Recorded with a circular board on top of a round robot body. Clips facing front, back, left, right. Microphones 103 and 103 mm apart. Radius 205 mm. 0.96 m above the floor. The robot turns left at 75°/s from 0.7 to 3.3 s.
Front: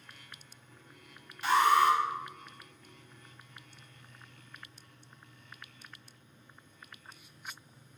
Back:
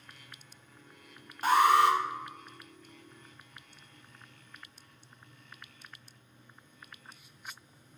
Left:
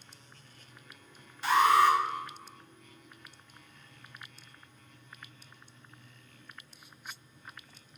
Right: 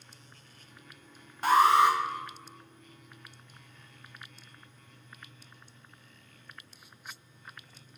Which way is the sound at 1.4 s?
130° right.